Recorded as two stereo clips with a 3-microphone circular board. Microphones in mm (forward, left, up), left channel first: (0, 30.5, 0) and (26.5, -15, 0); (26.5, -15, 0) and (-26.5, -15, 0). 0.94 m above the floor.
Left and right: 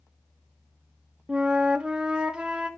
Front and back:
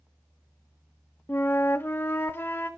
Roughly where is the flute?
Ahead.